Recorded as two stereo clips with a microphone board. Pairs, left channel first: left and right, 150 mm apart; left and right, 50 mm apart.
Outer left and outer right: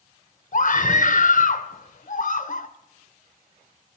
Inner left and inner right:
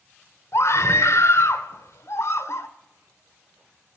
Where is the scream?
60° left (ahead or behind), 1.0 m.